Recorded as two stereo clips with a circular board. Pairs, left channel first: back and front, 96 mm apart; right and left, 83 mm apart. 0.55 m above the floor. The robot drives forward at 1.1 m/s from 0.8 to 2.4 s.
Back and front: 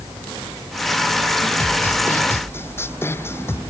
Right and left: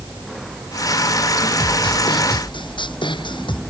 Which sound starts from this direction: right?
A snare drum, at 1.6 s.